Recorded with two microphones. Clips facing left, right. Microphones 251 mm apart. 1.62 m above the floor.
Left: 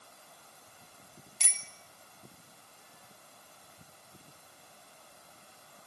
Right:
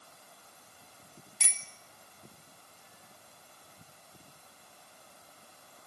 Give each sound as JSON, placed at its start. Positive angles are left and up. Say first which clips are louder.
{"t": 1.4, "sound": "a bicycle bell", "louder": "right 1 dB", "side_deg": -70, "distance_m": 2.0}